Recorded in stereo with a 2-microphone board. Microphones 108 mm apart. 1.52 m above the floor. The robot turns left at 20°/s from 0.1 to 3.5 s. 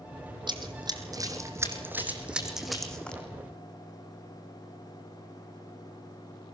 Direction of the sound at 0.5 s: 45° right (ahead or behind).